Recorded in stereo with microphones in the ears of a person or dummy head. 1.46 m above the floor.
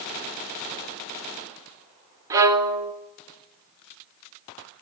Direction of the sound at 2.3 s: 25° right (ahead or behind).